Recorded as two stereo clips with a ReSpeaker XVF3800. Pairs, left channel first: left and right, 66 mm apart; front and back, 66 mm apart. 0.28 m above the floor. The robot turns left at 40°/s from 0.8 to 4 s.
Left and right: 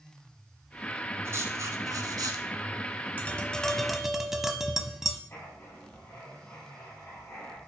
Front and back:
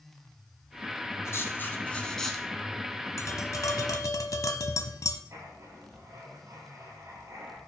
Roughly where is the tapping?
Ahead left.